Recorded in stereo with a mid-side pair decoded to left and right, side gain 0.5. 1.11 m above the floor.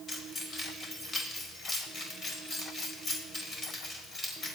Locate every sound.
0.1 s keys jangling: 45° left, 4 m